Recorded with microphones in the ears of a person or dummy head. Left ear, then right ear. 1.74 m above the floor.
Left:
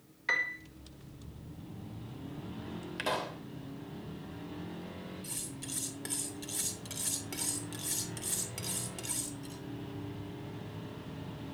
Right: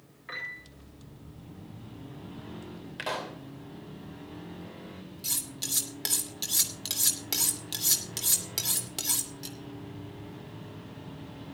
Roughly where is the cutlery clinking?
Right.